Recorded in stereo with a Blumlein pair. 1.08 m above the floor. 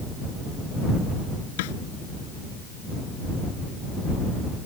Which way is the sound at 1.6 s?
50° left.